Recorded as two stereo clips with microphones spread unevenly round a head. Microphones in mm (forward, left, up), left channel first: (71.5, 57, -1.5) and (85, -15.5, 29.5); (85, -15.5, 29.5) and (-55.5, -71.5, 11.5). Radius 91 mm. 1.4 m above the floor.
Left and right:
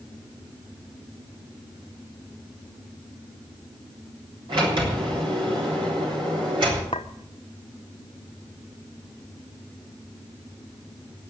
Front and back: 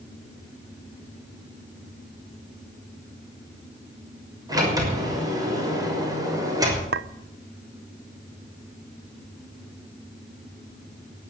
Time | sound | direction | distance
4.5 | a sliding door | 90° right | 6 m
6.9 | a clink | 165° left | 0.5 m